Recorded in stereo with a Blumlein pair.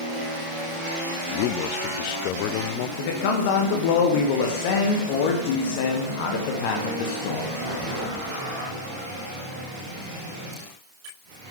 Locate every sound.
1.3 s a man speaking: 45° left, 0.6 m
3.0 s a man speaking: 50° left, 1.2 m